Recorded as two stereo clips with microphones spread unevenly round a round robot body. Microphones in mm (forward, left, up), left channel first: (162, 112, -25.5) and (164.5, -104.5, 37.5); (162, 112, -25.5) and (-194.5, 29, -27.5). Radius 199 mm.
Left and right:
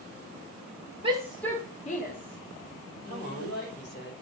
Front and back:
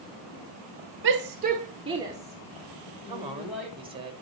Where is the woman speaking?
120° left, 2.5 m.